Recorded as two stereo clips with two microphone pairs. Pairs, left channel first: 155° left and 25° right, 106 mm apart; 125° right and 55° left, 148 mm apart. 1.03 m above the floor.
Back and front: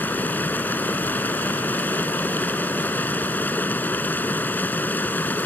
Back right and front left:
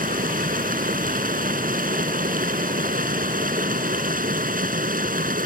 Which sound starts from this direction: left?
Running water, at 0.0 s.